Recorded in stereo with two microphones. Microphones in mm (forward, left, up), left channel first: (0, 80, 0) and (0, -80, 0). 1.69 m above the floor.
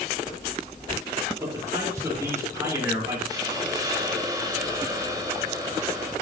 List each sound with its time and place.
1.4 s a man speaking: 20° right (ahead or behind), 4.5 m
3.3 s a hiss: 20° right (ahead or behind), 2.5 m